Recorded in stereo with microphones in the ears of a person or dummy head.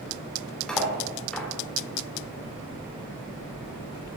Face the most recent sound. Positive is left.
turn(degrees=5)  # may be behind; listen again after turning